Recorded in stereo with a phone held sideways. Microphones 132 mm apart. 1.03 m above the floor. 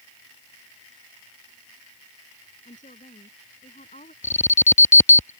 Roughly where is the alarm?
Left.